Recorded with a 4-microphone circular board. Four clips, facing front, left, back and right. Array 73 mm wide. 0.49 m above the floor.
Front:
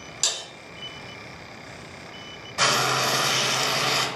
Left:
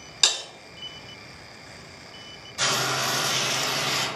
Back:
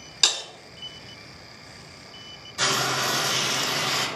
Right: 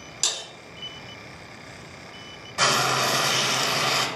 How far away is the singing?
No singing in this recording.